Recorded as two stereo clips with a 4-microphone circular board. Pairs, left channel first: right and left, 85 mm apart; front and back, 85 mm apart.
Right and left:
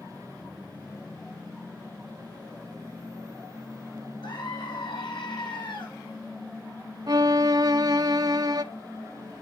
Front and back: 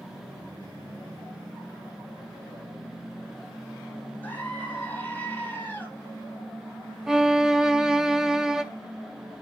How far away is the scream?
About 7 m.